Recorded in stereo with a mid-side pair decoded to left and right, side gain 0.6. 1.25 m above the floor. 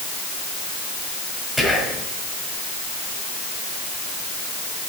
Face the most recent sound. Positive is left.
turn(degrees=5)